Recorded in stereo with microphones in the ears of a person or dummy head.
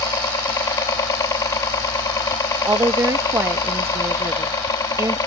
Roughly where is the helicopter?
Centre.